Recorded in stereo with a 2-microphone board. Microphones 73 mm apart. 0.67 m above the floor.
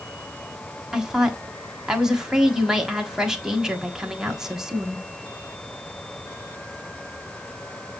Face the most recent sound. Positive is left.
turn(degrees=-10)  # may be behind; listen again after turning